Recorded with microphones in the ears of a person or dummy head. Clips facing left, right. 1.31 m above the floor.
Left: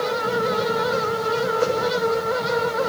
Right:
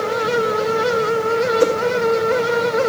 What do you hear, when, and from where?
1.6 s a whoosh: 50° right (ahead or behind), 2.5 m